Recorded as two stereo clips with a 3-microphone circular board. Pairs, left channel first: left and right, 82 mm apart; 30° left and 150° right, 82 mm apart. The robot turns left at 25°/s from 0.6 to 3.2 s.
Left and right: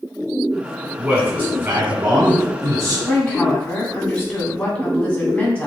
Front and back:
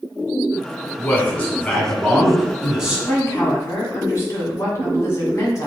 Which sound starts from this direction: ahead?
A man speaking, at 1.0 s.